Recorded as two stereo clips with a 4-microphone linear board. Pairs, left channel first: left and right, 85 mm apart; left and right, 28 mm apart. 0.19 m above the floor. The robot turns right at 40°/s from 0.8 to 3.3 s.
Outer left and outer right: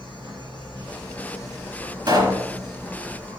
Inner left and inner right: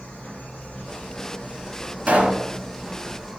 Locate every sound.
0.0 s an insect: 110° left, 3.5 m; by 3.4 s 150° right, 3.5 m
2.1 s a pop: 50° right (ahead or behind), 1.8 m